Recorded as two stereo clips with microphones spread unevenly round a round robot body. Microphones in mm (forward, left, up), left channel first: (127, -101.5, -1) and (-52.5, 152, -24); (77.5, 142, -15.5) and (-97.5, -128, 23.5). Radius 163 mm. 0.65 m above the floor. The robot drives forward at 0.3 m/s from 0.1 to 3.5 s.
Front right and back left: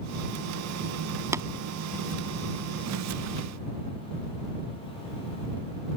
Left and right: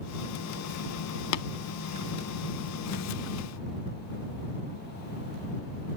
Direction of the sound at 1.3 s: 50° left.